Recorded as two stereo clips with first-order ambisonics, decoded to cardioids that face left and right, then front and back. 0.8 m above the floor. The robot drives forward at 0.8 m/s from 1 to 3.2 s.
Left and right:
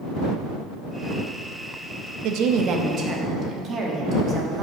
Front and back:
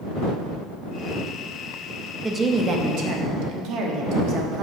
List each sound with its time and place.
2.2 s a woman speaking: 100° right, 0.6 m; by 4.6 s 150° right, 1.0 m